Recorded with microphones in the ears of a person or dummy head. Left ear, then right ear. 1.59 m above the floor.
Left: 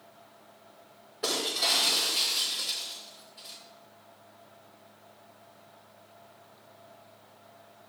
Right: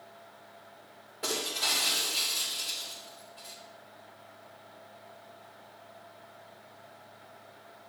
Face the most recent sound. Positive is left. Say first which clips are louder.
# left 3 dB
turn(degrees=-15)  # may be behind; listen again after turning